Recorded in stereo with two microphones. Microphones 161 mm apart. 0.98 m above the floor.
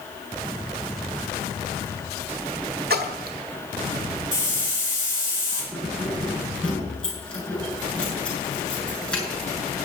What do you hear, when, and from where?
2.9 s a splash: 75° right (ahead or behind), 1.6 m
4.3 s a hiss: 20° left (ahead or behind), 7 m
5.7 s keys jangling: 5° left (ahead or behind), 8 m